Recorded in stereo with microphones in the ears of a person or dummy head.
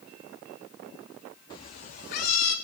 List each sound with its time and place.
1.5 s a cat meowing: 15° left (ahead or behind), 0.7 m; by 2.5 s 55° left (ahead or behind), 1.4 m